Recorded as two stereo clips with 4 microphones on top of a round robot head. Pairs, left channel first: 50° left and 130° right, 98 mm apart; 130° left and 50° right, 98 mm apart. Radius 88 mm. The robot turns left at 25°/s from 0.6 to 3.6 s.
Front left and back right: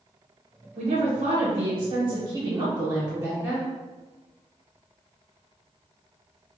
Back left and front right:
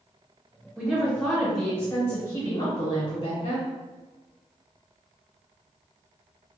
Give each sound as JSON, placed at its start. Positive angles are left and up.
{"t": 0.8, "sound": "a woman speaking", "azimuth_deg": -140, "distance_m": 1.1}